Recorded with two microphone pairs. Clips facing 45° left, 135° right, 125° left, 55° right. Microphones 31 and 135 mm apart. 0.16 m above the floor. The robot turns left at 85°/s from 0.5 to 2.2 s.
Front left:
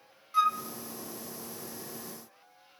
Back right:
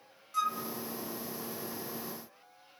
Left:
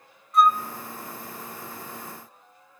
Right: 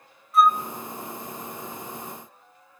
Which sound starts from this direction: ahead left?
A flute, at 0.3 s.